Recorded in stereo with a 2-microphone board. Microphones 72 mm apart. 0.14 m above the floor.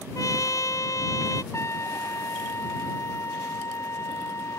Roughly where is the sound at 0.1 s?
Left.